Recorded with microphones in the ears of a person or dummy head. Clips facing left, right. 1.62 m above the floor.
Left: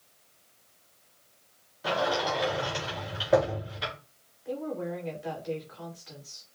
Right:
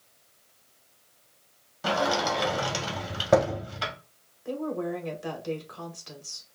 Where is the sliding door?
65° right (ahead or behind), 2 m.